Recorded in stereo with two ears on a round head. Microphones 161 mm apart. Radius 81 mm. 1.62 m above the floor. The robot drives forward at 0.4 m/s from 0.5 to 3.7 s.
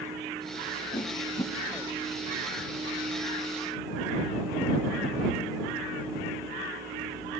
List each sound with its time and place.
0.9 s a whoosh: 20° left (ahead or behind), 0.8 m